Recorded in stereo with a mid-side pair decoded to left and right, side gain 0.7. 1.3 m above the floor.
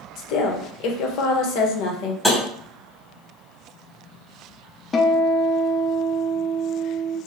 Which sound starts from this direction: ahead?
Tapping, at 2.2 s.